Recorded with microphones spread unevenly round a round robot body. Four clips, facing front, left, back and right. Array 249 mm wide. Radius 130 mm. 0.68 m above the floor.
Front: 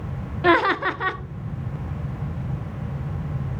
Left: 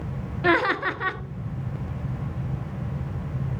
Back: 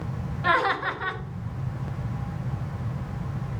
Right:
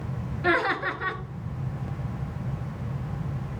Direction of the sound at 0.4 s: 15° left.